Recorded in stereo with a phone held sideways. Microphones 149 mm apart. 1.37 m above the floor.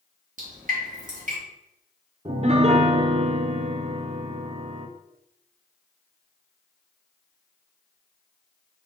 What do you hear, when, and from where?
0.4 s dripping: 60° right (ahead or behind), 2.5 m
2.2 s a piano: 45° right (ahead or behind), 0.7 m